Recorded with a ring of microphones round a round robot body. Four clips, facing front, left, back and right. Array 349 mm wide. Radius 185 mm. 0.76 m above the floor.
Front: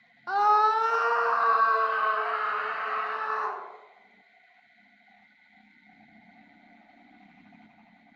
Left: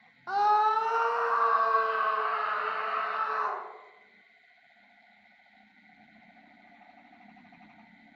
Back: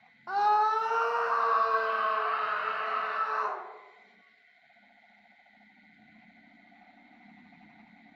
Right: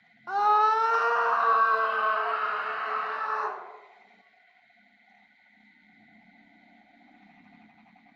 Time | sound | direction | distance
0.3 | a scream | 5° right | 0.8 m